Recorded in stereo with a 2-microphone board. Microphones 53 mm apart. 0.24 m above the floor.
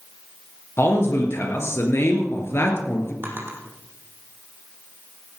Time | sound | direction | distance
0.8 | a man speaking | 50° left (ahead or behind) | 3.5 m
3.2 | a drawer | 40° right (ahead or behind) | 3.5 m